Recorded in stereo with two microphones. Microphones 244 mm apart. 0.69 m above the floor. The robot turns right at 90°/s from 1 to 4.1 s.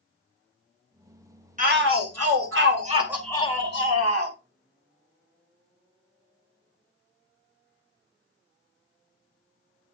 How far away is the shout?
About 2 m.